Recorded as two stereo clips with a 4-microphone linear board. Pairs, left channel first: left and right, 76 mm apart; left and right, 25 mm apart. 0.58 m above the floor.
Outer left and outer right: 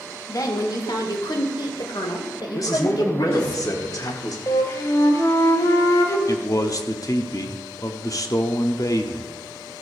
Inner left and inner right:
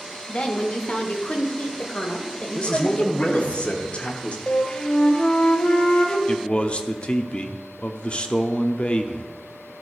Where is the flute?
45° left (ahead or behind), 0.9 m.